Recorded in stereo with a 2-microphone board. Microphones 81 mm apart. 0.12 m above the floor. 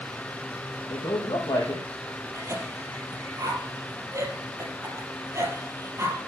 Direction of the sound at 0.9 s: 65° left (ahead or behind).